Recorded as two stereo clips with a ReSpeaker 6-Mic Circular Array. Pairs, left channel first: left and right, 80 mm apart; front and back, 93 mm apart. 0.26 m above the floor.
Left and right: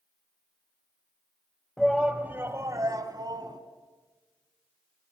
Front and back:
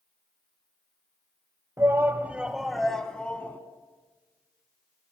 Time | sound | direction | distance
1.8 | a shout | 175° left | 1.0 m